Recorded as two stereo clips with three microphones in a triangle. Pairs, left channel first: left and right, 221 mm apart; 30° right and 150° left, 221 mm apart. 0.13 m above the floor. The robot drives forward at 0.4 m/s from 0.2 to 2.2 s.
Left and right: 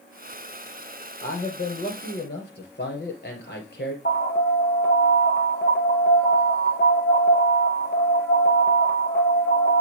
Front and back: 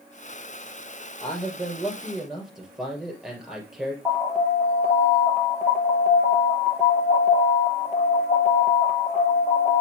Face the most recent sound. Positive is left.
turn(degrees=60)